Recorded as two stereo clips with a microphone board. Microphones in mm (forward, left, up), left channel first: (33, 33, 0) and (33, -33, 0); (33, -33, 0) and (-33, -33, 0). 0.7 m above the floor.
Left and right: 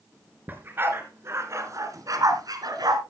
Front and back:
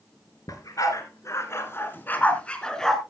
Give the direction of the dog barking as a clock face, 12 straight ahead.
1 o'clock.